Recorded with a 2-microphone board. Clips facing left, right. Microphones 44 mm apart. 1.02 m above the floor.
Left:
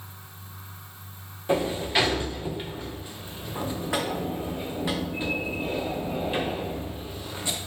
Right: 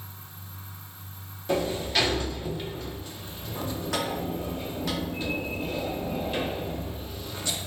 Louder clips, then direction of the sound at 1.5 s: Left 2 dB; 20° left (ahead or behind).